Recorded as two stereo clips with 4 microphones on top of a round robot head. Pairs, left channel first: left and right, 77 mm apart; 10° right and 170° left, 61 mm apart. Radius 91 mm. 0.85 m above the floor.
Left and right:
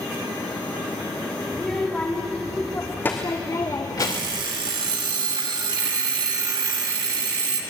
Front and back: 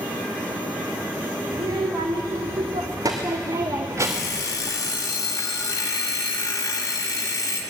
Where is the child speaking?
170° left, 2.5 m; by 4.4 s 120° left, 1.1 m.